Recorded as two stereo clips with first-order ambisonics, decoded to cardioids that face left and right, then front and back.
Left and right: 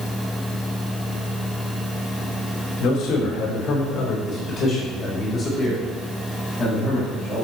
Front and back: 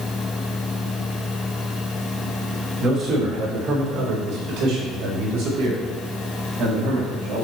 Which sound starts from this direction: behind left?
A man speaking, at 2.8 s.